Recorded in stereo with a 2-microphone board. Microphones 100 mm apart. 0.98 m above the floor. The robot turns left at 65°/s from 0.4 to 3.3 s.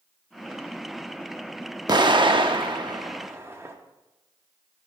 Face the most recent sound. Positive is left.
turn(degrees=-25)  # may be behind; listen again after turning